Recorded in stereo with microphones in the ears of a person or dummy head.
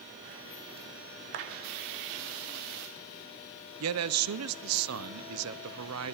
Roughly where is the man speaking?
Right.